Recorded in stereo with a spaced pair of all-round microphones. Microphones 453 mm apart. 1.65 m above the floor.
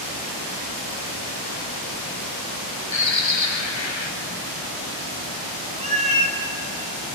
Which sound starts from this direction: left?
A bird, at 2.9 s.